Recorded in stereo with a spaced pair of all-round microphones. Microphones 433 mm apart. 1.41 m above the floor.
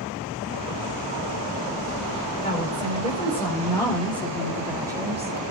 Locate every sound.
2.4 s a woman speaking: 20° left (ahead or behind), 5 m; by 5.3 s 15° right (ahead or behind), 2.5 m